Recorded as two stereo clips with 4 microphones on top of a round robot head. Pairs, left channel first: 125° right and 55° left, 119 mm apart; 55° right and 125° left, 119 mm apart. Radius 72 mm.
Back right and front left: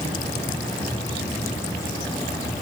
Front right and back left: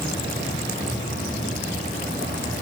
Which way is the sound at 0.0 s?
60° right.